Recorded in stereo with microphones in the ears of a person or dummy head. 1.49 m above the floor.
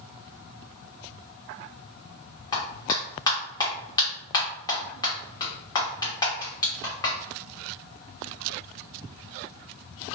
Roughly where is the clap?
Left.